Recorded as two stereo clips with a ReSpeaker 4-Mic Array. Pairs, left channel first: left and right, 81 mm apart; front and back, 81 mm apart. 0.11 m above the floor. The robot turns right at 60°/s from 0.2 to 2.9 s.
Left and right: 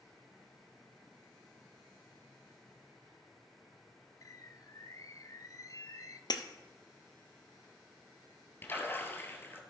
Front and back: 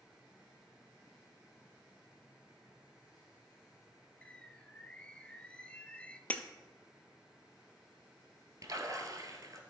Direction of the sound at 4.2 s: 70° left.